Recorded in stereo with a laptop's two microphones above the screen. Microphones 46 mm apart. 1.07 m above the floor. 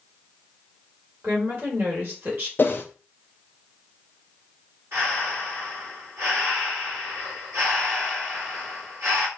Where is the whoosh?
45° left (ahead or behind), 0.5 m.